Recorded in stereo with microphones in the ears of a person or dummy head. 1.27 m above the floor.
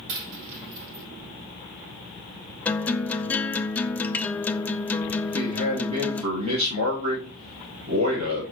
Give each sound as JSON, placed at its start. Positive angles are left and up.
{"t": 0.1, "sound": "a dropped coin", "side_deg": -65, "distance_m": 1.5}
{"t": 2.6, "sound": "a guitar", "side_deg": 10, "distance_m": 0.5}
{"t": 5.2, "sound": "a man speaking", "side_deg": -35, "distance_m": 2.5}